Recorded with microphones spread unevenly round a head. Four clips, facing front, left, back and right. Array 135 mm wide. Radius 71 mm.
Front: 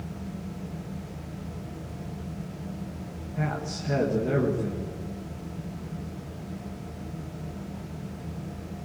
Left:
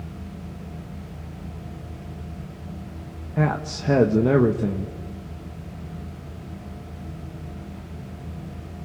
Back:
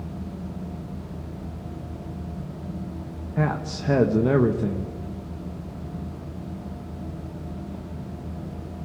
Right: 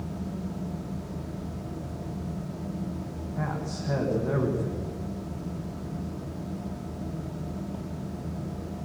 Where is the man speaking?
105° left, 1.7 m.